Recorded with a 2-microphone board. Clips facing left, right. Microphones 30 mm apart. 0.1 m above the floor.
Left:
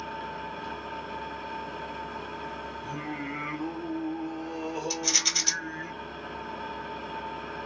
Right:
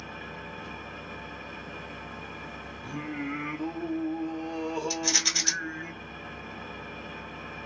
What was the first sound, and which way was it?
An engine running, 75° left (ahead or behind).